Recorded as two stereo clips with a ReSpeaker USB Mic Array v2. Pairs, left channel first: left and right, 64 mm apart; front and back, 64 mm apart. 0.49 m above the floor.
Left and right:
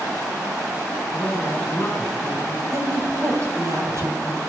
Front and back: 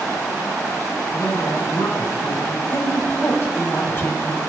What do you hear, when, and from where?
1.1 s a woman speaking: 20° left, 5 m
2.7 s a woman speaking: 50° right, 3 m